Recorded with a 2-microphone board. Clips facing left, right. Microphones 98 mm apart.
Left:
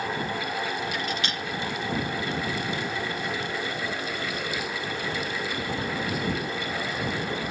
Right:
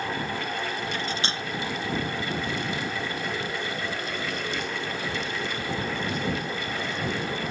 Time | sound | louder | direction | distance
0.9 | cutlery clinking | even | 30° right (ahead or behind) | ?